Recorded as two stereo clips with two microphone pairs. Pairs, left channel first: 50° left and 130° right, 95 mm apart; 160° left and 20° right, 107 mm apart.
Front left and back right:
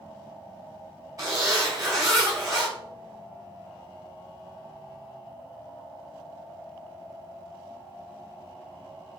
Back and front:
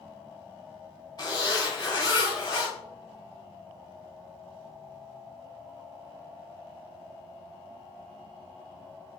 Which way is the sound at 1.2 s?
170° right.